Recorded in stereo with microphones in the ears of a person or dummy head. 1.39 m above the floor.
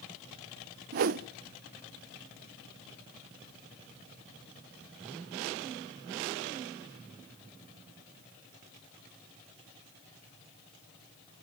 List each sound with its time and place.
0.9 s a whoosh: 45° right (ahead or behind), 0.6 m